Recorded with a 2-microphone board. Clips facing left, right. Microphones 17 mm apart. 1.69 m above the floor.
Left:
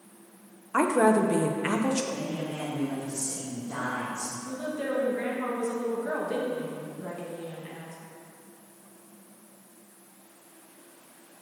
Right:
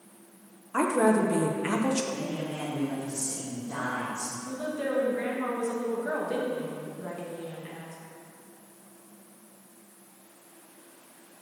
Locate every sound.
0.7 s a woman speaking: 20° left (ahead or behind), 0.6 m
2.1 s a man speaking: 40° right (ahead or behind), 1.5 m
4.5 s a woman speaking: 15° right (ahead or behind), 1.6 m